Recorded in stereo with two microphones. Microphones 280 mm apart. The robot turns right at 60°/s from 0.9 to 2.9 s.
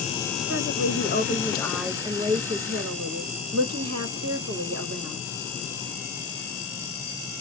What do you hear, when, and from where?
0.5 s a woman speaking: 130° left, 1.0 m; by 5.2 s 110° right, 1.0 m